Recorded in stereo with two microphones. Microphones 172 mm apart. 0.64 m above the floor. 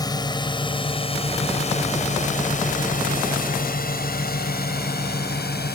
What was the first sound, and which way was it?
A drone, 25° left (ahead or behind).